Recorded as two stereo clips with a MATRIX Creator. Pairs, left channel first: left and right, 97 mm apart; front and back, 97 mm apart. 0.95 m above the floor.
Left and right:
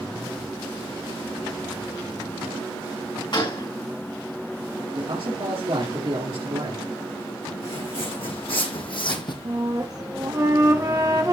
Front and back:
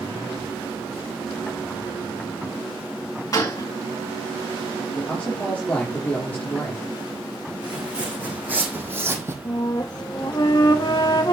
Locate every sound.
3.3 s a gunshot: 55° left, 4 m
4.9 s a man speaking: 70° right, 3 m
7.6 s footsteps: 105° left, 4.5 m; by 9.3 s 120° left, 2 m
9.4 s a flute: 40° right, 1.4 m